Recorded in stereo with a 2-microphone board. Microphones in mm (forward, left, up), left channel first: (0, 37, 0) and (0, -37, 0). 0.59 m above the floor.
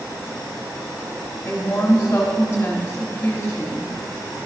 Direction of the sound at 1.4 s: 30° left (ahead or behind).